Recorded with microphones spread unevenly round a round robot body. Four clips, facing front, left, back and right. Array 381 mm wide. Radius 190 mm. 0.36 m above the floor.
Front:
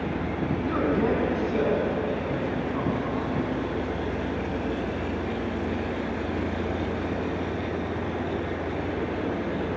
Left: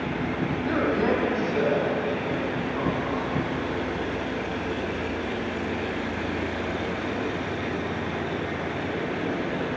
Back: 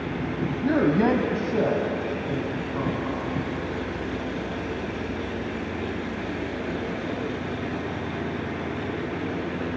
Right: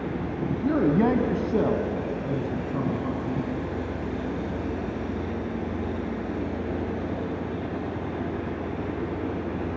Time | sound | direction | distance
0.6 | a man speaking | 135° right | 2.5 m